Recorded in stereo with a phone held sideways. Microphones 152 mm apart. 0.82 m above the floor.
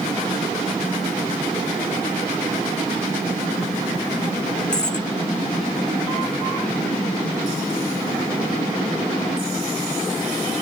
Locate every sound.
4.7 s a dropped coin: 5° left (ahead or behind)